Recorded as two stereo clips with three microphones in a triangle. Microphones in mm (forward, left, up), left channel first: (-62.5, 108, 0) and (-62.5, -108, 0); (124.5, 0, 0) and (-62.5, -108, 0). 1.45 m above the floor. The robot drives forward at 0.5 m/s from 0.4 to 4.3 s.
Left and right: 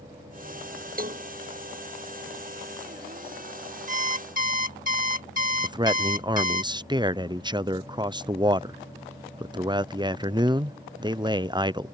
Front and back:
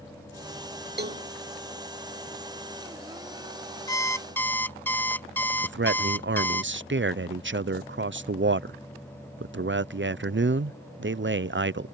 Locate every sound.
1.0 s a cowbell: 125° right; by 1.3 s 135° right
3.9 s an alarm clock: 40° right; by 6.6 s 50° right
5.6 s a man speaking: 160° right